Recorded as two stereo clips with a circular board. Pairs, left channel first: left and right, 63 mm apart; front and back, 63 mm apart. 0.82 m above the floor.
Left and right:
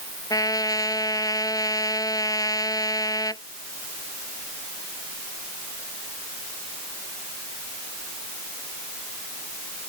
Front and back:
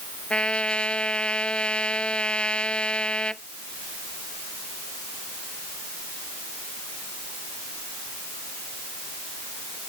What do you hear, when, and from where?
0.3 s a trumpet: 75° left